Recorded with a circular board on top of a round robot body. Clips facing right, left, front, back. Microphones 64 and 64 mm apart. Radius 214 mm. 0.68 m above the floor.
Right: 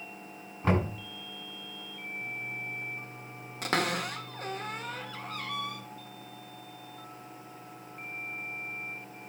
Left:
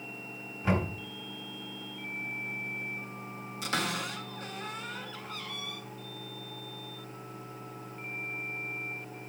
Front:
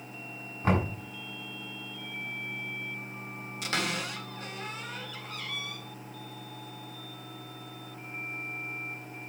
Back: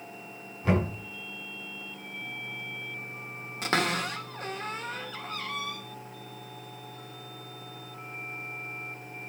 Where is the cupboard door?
130° right, 1.8 m.